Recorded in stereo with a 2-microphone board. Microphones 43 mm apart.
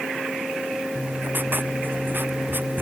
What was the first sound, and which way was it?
Writing, 50° right (ahead or behind).